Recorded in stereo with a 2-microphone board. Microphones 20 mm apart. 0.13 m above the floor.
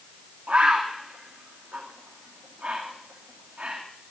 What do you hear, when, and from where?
0.5 s a bird: 60° right (ahead or behind), 2.5 m